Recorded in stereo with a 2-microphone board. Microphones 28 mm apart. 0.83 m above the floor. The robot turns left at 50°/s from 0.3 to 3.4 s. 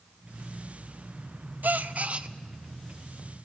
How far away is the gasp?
About 0.5 m.